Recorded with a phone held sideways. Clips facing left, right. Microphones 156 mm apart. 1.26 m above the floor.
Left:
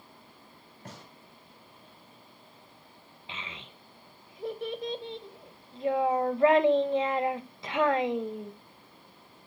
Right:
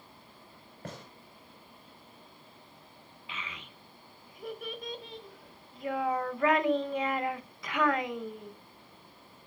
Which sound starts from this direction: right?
A gunshot, at 0.8 s.